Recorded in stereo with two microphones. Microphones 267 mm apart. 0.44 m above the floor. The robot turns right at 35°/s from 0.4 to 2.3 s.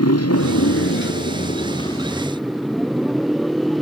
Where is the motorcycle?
115° left; by 3.8 s straight behind.